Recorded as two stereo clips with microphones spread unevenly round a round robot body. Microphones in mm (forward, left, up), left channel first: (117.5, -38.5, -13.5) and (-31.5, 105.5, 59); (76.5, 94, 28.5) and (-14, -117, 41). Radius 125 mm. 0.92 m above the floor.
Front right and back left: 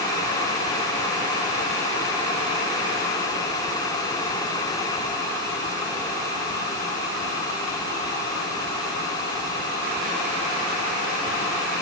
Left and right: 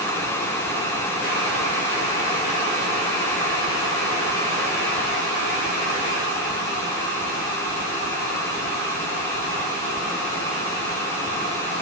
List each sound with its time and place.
Only background noise.